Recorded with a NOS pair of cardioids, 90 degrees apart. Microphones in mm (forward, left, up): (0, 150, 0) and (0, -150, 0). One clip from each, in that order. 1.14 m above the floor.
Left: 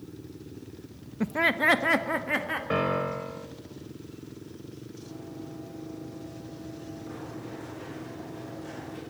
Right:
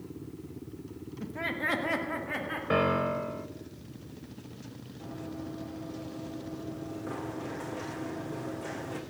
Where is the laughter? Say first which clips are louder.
Left 9 dB; 65° left, 0.6 m; by 2.6 s 45° left, 3 m.